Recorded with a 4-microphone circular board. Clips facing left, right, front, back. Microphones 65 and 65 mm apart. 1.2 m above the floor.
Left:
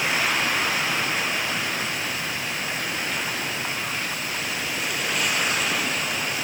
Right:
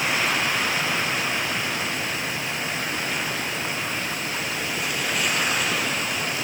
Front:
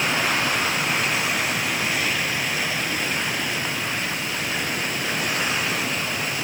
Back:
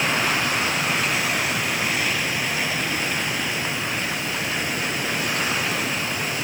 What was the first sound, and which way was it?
Only background noise.